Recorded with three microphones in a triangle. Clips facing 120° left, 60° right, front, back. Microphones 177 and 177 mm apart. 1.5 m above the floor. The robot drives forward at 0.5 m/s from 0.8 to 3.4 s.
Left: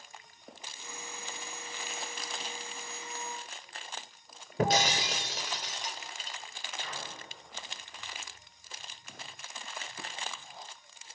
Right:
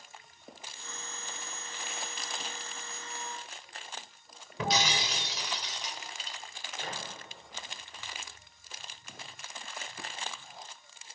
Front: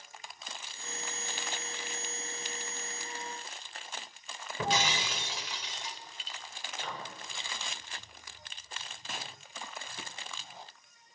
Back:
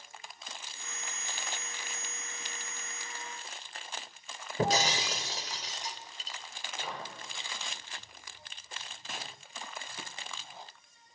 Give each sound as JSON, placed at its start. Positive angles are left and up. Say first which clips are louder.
{"t": 4.6, "sound": "breaking glass", "louder": "left 4 dB, back 3 dB", "azimuth_deg": 145, "distance_m": 1.8}
{"t": 6.8, "sound": "a microwave", "louder": "right 3 dB, back 1 dB", "azimuth_deg": -100, "distance_m": 4.5}